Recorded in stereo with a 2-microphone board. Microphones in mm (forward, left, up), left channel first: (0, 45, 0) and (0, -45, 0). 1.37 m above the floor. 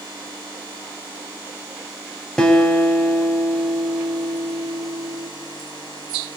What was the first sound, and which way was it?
A guitar, 5° left (ahead or behind).